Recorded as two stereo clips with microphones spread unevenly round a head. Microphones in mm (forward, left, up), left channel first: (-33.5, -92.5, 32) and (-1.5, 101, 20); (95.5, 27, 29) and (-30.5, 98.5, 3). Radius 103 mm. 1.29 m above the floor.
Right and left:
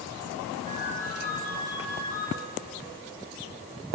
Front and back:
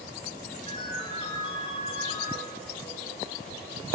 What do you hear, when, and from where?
0.7 s a ringtone: 25° left, 7.5 m